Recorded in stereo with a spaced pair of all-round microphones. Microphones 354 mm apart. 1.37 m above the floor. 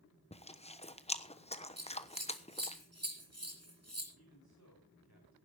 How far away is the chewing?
About 1.1 m.